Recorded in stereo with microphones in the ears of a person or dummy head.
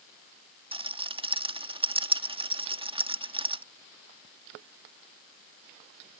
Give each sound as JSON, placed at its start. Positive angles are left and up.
{"t": 0.7, "sound": "a rattle", "side_deg": -25}